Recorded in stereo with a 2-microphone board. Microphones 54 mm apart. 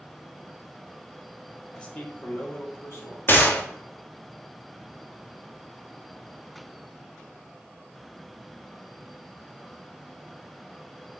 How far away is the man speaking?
About 1.0 m.